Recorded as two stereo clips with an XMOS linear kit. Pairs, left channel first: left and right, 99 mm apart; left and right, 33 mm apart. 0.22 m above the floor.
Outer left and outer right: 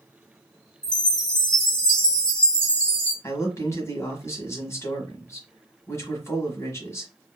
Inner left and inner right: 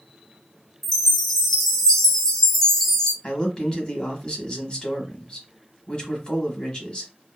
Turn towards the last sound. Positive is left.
turn(degrees=30)  # may be behind; listen again after turning